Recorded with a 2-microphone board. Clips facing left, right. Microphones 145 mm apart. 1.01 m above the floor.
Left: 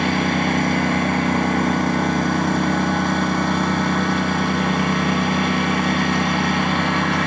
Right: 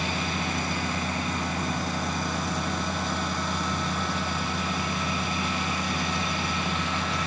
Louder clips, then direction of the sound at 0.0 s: Left 11 dB; 65° left (ahead or behind).